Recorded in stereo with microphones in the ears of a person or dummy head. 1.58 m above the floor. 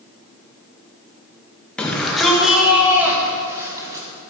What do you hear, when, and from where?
1.8 s a shout: 10° left (ahead or behind), 2.5 m; by 4.0 s 15° right (ahead or behind), 3.5 m